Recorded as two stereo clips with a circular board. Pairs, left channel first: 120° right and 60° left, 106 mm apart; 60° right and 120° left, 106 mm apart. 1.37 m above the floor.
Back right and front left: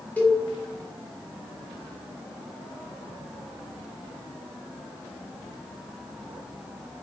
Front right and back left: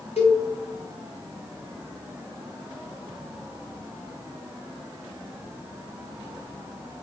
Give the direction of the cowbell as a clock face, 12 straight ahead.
2 o'clock.